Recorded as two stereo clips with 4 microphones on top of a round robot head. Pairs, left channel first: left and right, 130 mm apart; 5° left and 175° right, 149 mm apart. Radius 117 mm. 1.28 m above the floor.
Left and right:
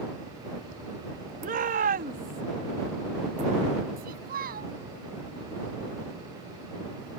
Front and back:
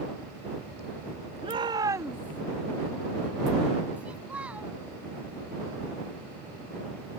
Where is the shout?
115° right; by 2.4 s 95° right.